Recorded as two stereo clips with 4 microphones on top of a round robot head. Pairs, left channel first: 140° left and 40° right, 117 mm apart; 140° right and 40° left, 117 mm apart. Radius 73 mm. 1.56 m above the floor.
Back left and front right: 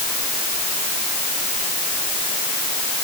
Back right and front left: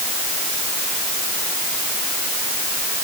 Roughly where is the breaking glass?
I don't hear breaking glass.